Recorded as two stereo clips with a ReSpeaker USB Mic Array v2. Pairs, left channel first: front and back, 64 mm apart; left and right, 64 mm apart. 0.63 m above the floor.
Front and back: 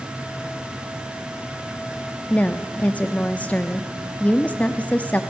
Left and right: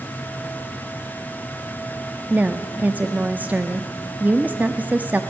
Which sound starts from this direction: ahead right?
A woman speaking, at 2.3 s.